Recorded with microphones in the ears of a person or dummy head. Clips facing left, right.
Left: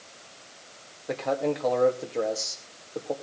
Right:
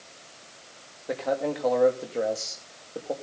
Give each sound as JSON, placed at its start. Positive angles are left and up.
{"t": 1.1, "sound": "a man speaking", "side_deg": 5, "distance_m": 2.5}